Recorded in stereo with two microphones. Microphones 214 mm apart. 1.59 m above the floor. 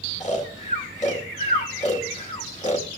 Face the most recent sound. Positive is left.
turn(degrees=35)  # may be behind; listen again after turning